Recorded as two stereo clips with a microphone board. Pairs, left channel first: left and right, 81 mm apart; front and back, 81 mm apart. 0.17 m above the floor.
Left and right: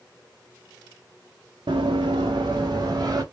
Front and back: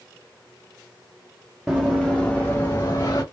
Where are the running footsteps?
100° right, 0.8 m; by 3.2 s 45° right, 0.9 m.